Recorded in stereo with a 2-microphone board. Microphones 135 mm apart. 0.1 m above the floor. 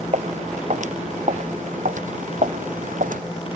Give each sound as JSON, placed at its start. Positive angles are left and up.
{"t": 0.1, "sound": "footsteps", "side_deg": -60}